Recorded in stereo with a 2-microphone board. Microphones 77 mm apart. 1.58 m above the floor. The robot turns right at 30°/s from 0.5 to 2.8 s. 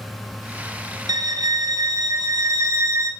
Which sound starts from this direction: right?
A violin, at 1.1 s.